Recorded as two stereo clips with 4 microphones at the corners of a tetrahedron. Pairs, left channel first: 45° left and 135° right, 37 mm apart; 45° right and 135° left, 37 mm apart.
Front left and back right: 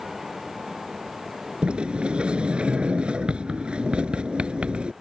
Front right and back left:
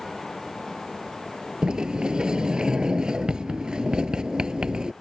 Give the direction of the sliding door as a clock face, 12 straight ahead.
6 o'clock.